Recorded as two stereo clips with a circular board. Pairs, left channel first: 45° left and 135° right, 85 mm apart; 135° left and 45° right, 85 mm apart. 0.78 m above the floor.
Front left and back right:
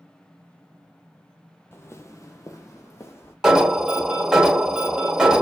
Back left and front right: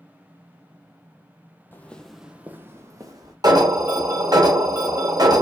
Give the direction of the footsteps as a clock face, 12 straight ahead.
9 o'clock.